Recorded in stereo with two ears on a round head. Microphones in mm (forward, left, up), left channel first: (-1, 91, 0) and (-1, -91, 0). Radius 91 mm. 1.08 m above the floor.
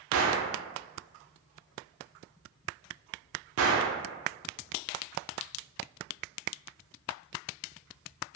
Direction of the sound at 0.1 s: 75° right (ahead or behind).